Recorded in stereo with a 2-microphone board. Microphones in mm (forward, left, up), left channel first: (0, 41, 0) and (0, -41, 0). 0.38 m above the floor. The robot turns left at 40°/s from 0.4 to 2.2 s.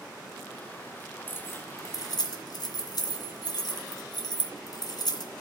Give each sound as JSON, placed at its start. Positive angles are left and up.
{"t": 1.3, "sound": "keys jangling", "side_deg": 25, "distance_m": 2.0}